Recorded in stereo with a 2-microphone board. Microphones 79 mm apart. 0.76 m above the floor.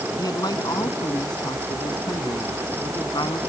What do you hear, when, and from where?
0.2 s a man speaking: 55° left (ahead or behind); by 3.4 s 70° left (ahead or behind)